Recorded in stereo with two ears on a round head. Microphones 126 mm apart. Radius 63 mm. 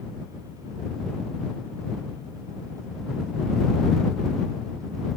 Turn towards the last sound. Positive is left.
No sound to turn to.